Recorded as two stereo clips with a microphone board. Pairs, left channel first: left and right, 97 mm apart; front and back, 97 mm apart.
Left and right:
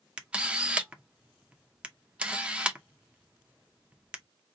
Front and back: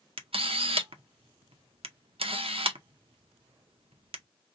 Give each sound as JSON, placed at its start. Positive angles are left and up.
{"t": 0.2, "sound": "a camera shutter", "azimuth_deg": -170, "distance_m": 0.6}